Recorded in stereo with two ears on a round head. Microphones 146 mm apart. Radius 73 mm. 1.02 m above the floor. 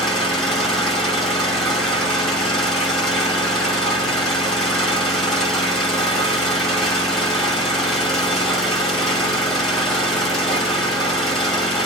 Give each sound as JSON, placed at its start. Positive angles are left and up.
{"t": 0.0, "sound": "an engine running", "side_deg": 0, "distance_m": 1.5}